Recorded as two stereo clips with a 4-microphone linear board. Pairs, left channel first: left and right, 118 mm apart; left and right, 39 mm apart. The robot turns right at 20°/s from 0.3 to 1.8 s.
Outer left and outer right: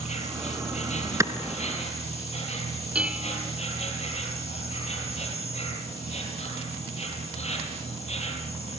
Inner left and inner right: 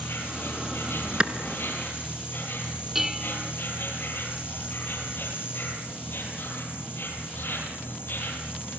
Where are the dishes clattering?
10° right (ahead or behind), 1.1 m.